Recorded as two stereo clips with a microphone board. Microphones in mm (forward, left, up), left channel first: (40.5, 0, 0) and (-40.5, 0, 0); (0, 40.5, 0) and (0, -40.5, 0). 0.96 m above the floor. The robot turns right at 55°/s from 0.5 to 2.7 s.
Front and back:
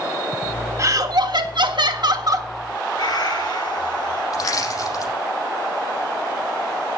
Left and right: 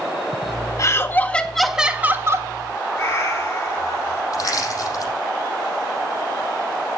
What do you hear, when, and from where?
0.8 s laughter: 130° left, 1.6 m; by 2.5 s 135° right, 1.6 m
3.0 s a cat meowing: 30° left, 9.5 m
4.3 s crushing: 40° left, 6.5 m